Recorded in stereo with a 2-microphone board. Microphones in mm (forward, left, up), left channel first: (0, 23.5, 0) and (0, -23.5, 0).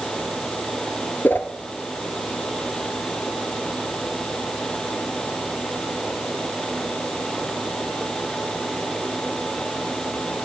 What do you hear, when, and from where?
1.2 s a whoosh: 45° left (ahead or behind), 0.8 m